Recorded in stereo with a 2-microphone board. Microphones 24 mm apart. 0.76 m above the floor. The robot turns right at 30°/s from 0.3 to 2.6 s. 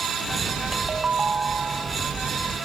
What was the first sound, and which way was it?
A ringtone, 150° right.